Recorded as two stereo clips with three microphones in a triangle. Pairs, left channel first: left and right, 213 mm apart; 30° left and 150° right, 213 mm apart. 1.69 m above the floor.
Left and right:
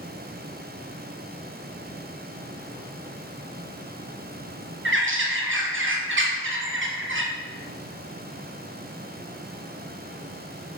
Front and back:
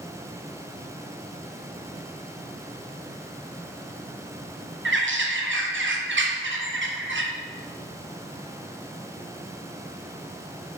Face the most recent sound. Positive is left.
turn(degrees=-120)